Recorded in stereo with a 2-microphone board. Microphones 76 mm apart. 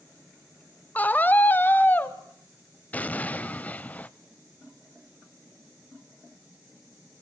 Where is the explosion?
20° left (ahead or behind), 0.7 m.